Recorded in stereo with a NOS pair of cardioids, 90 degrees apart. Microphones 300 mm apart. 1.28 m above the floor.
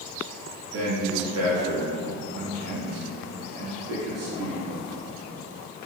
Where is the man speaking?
50° right, 1.5 m.